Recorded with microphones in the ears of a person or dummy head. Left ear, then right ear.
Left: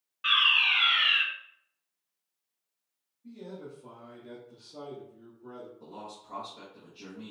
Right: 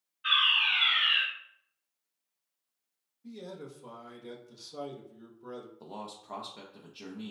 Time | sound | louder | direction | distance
0.2 | a fire alarm | left 2 dB | 50° left (ahead or behind) | 1.5 m
3.2 | a man speaking | even | 85° right | 0.8 m
5.8 | a man speaking | right 1 dB | 40° right (ahead or behind) | 0.5 m